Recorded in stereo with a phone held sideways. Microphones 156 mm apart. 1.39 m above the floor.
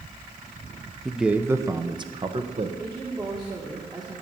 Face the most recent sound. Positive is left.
turn(degrees=-25)  # may be behind; listen again after turning